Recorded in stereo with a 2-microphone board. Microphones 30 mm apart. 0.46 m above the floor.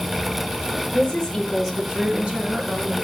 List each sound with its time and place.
0.9 s a woman speaking: 25° left (ahead or behind), 1.2 m; by 2.9 s 55° right (ahead or behind), 1.4 m